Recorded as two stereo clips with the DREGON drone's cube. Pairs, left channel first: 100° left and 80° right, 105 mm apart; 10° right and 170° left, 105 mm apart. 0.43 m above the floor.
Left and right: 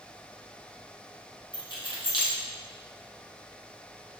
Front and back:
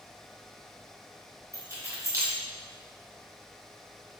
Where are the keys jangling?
115° left, 0.7 m.